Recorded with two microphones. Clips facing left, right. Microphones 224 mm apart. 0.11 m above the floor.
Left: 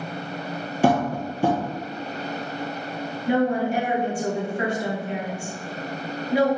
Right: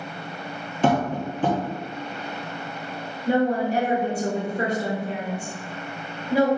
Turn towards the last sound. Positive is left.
turn(degrees=-35)  # may be behind; listen again after turning